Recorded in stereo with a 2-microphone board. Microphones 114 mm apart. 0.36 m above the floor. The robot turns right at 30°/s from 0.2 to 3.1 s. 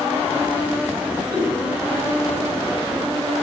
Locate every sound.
1.3 s a giggle: 35° right (ahead or behind), 1.7 m; by 1.6 s 40° right (ahead or behind), 1.7 m